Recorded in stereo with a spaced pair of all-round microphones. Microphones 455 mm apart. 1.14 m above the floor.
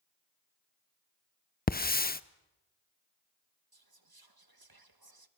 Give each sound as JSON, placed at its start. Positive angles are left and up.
{"t": 1.7, "sound": "a hiss", "side_deg": 20, "distance_m": 0.5}
{"t": 3.7, "sound": "whispering", "side_deg": -50, "distance_m": 1.2}